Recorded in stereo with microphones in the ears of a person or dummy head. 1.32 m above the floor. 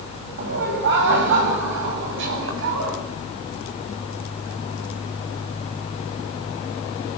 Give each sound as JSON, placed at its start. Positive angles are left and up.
{"t": 0.4, "sound": "laughter", "side_deg": -60, "distance_m": 7.5}